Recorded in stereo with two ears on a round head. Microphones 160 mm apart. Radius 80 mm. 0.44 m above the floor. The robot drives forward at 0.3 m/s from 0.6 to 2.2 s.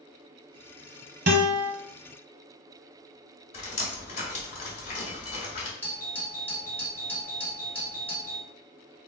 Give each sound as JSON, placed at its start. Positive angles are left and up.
{"t": 1.3, "sound": "a guitar", "side_deg": -65, "distance_m": 1.1}
{"t": 3.5, "sound": "dripping", "side_deg": 40, "distance_m": 2.0}
{"t": 5.8, "sound": "a doorbell", "side_deg": 10, "distance_m": 1.8}